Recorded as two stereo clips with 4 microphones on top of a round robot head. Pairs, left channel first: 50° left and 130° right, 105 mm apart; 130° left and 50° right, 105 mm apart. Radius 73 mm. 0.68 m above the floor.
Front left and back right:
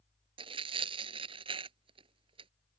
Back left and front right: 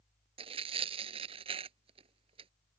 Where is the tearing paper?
90° right.